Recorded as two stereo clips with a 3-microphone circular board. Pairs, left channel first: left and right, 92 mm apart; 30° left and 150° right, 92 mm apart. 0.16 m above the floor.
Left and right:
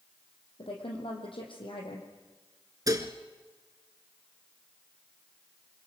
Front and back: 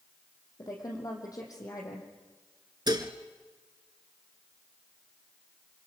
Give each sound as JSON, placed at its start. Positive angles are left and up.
{"t": 0.6, "sound": "a woman speaking", "azimuth_deg": 75, "distance_m": 5.5}
{"t": 2.9, "sound": "dishes clattering", "azimuth_deg": -125, "distance_m": 1.6}